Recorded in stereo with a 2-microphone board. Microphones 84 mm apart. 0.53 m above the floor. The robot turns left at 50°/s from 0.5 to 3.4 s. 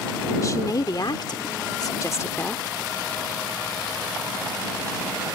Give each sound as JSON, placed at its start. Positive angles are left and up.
{"t": 0.4, "sound": "a woman speaking", "azimuth_deg": 130}